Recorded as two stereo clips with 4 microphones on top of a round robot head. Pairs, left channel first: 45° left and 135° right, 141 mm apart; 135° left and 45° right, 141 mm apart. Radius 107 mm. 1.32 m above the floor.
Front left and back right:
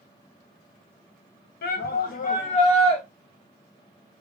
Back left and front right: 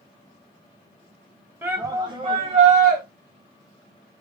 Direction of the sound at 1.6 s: 40° left.